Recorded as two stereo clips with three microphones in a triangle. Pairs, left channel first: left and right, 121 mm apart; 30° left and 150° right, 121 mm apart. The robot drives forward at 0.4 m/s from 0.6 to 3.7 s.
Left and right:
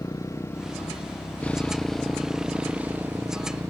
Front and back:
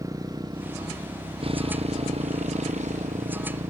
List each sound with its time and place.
0.0 s a motorcycle: 150° left; by 3.7 s 155° right